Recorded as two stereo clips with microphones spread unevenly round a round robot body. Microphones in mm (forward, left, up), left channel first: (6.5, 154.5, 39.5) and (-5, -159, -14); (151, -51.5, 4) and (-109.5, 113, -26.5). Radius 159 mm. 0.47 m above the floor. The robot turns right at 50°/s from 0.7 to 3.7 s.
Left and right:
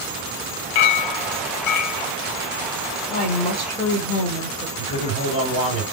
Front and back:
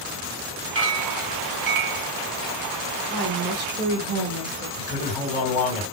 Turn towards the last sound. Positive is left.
turn(degrees=35)